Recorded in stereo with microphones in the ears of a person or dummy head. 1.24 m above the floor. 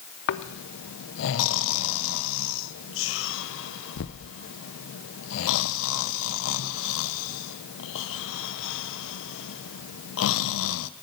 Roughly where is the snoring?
Left.